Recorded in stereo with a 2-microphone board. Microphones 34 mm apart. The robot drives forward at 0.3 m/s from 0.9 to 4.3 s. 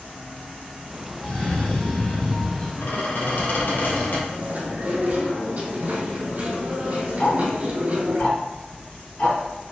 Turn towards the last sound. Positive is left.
turn(degrees=35)  # may be behind; listen again after turning